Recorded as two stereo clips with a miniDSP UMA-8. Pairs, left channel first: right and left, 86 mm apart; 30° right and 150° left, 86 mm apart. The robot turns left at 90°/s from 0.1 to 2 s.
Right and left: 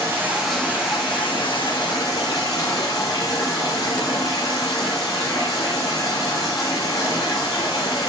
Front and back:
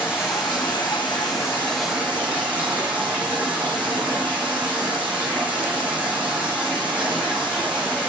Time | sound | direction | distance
0.0 | running water | 35° left | 6 m